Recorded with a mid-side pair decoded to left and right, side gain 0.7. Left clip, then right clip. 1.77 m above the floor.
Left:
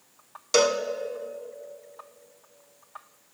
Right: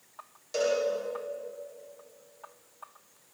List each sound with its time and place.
0.5 s a cowbell: 55° left, 1.4 m